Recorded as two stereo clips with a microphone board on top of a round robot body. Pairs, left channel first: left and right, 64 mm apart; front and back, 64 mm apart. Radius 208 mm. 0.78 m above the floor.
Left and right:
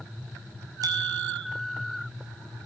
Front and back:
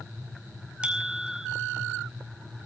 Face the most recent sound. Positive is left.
turn(degrees=-110)